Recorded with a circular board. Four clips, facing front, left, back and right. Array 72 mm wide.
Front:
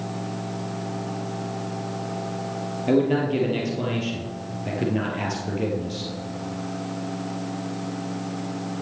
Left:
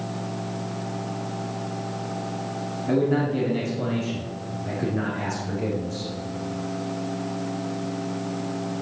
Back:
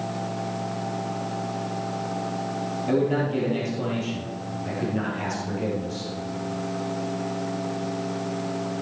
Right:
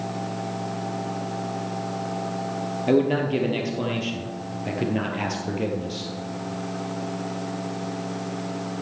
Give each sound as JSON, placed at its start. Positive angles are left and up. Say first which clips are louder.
{"t": 2.9, "sound": "a man speaking", "louder": "right 2 dB, front 3 dB", "azimuth_deg": -65, "distance_m": 2.5}